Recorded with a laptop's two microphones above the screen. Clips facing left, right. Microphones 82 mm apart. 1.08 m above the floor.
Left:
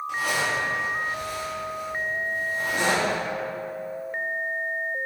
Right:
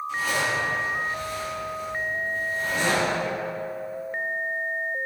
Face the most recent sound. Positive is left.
turn(degrees=70)  # may be behind; listen again after turning